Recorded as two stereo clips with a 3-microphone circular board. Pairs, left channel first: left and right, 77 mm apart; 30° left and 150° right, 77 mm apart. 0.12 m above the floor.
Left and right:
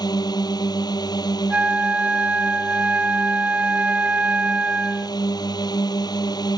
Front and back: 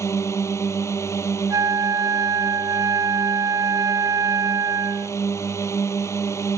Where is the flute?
160° right.